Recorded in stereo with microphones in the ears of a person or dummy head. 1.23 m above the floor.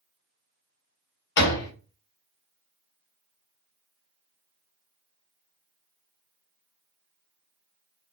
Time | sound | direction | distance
1.4 | a door slam | 65° left (ahead or behind) | 1.0 m